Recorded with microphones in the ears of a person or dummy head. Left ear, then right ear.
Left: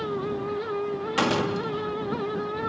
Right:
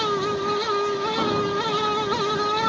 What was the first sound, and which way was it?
A fan, 85° right.